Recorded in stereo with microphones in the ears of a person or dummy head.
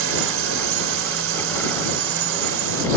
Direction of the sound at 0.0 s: 75° right (ahead or behind).